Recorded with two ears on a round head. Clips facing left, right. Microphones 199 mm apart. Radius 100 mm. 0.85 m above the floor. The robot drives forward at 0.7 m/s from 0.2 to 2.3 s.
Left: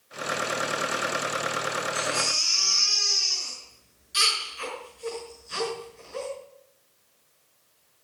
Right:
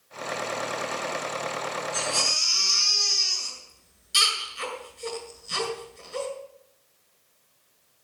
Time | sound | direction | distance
1.9 | a baby crying | 40° right (ahead or behind) | 6 m